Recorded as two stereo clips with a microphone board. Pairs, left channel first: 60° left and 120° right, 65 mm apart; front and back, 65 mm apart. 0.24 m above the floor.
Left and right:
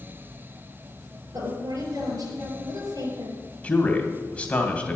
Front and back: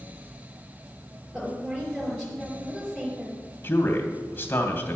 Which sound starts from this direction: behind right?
A woman speaking, at 1.3 s.